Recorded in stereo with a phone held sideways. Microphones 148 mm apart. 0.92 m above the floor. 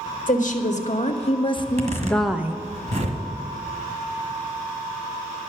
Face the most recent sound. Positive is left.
turn(degrees=-55)  # may be behind; listen again after turning